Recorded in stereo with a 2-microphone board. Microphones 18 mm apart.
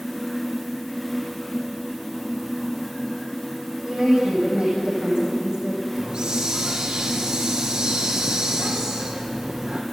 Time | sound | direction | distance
3.8 | a woman speaking | 55° right (ahead or behind) | 7.5 m
5.9 | a hiss | 50° right (ahead or behind) | 4 m